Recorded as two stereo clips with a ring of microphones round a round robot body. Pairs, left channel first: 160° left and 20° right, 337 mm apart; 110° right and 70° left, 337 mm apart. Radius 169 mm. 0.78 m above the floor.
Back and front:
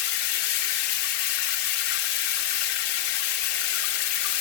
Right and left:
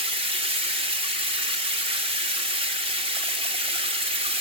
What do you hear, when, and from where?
0.0 s running water: 140° left, 1.5 m